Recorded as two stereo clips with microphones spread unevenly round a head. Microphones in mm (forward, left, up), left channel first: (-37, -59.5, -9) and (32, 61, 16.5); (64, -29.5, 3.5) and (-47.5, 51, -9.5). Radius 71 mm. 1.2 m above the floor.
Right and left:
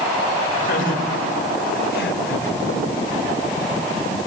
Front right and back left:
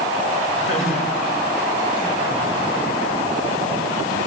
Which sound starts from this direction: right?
Laughter, at 0.6 s.